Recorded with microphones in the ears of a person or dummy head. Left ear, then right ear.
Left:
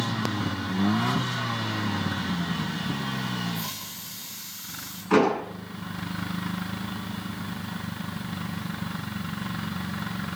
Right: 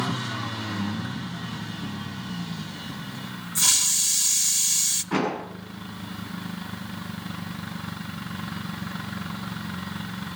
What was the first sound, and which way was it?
A hiss, 50° right (ahead or behind).